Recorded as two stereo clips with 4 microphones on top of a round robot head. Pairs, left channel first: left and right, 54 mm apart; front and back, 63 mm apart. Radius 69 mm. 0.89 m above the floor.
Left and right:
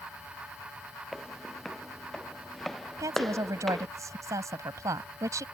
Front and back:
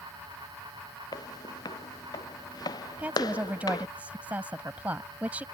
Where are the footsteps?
5° left.